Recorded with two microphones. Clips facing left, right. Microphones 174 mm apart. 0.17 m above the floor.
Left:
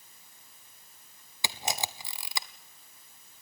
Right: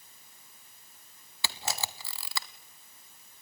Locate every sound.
1.4 s a camera shutter: 20° left (ahead or behind), 0.9 m